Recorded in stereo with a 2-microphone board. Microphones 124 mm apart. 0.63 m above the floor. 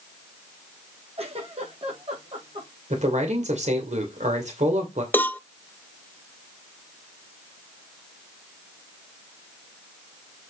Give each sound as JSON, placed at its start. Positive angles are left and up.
{"t": 1.2, "sound": "a giggle", "side_deg": -50, "distance_m": 4.5}
{"t": 2.9, "sound": "a man speaking", "side_deg": -70, "distance_m": 2.5}
{"t": 5.1, "sound": "a cowbell", "side_deg": 15, "distance_m": 0.5}